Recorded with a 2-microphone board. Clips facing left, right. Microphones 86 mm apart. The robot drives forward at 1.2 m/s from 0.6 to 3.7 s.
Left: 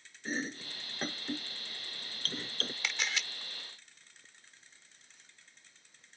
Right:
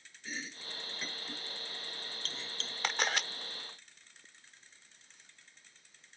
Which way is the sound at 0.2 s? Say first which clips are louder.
Left 7 dB; 40° left (ahead or behind).